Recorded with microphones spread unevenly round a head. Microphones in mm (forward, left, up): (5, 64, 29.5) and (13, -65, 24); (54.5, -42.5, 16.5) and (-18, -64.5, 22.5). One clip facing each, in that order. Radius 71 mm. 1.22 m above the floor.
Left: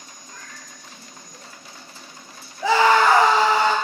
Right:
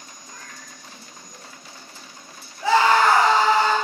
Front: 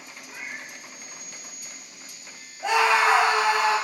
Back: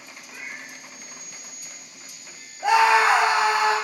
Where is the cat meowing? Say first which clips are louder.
Even, even; 50° right, 1.2 m.